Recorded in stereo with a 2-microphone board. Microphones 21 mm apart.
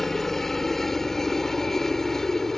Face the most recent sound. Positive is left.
turn(degrees=20)  # may be behind; listen again after turning